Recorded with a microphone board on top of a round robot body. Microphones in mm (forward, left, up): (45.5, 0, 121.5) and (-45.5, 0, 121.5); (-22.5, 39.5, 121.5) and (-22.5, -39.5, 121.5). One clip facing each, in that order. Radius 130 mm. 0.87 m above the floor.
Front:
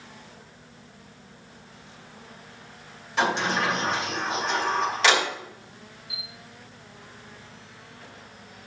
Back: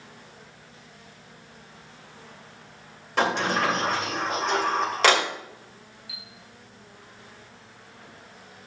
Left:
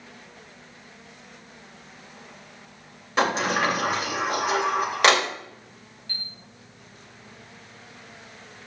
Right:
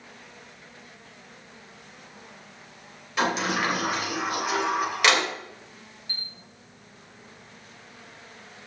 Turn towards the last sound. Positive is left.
turn(degrees=-165)